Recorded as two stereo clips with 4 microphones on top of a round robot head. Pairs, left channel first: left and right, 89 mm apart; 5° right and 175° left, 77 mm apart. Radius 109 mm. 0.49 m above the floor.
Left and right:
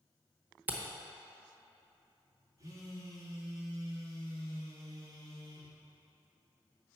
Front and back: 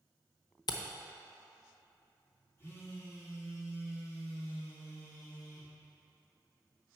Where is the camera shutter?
20° right, 0.8 m.